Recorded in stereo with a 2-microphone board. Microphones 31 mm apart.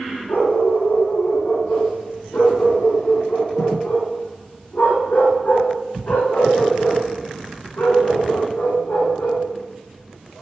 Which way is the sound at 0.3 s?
80° left.